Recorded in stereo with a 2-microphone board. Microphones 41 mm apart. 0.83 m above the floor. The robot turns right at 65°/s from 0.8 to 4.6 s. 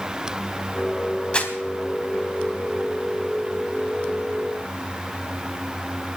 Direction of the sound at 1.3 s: 25° left (ahead or behind).